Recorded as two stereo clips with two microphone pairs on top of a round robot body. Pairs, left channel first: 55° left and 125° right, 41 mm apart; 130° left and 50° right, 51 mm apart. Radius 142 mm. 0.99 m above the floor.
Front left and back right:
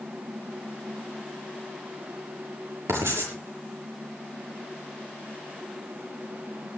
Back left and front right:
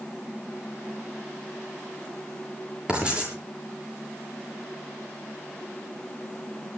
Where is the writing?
120° right, 7.5 m.